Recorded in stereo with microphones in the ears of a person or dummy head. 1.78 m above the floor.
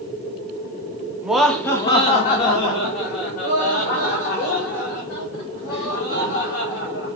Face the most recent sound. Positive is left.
turn(degrees=80)